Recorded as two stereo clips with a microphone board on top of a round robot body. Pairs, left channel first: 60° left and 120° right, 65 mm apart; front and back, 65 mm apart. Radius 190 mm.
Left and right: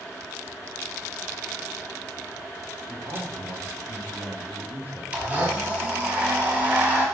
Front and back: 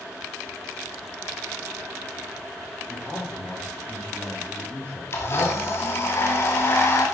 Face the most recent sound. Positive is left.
turn(degrees=-50)